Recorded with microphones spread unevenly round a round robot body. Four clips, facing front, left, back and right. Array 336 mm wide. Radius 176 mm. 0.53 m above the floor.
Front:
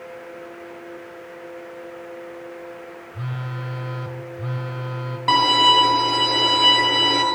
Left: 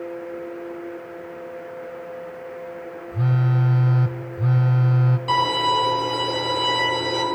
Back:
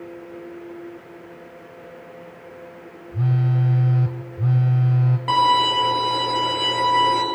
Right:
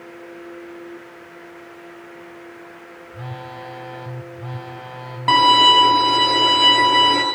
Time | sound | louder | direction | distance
3.1 | a phone buzzing | left 10 dB, back 10 dB | 145° left | 1.5 m
5.3 | a violin | right 8 dB, front 1 dB | 75° right | 10 m